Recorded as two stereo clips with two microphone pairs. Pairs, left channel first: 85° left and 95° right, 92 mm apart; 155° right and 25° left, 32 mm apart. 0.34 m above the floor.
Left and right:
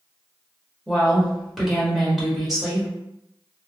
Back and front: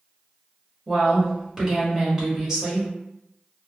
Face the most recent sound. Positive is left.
turn(degrees=-15)